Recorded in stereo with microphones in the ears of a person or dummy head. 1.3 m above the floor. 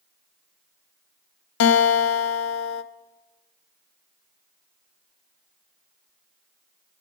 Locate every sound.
1.6 s a guitar: 70° left (ahead or behind), 0.5 m